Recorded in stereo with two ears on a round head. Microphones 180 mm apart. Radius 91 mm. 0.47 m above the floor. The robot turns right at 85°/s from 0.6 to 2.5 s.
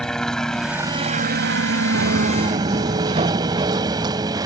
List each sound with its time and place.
0.0 s a helicopter: 175° left; by 4.5 s 20° right
1.9 s footsteps: 85° right; by 4.5 s 20° right (ahead or behind)